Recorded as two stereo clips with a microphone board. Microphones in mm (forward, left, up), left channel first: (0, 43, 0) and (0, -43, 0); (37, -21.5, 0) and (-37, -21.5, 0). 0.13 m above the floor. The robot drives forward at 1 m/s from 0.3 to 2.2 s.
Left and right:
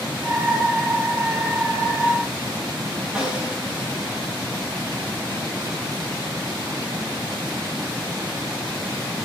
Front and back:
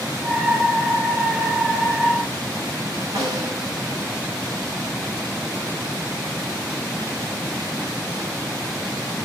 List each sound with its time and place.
3.1 s a snare drum: 170° right, 8 m